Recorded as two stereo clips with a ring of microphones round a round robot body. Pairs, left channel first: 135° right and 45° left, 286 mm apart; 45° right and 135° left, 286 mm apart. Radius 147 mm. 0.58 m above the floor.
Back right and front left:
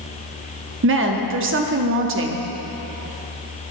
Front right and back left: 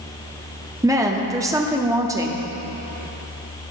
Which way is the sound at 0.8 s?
60° left.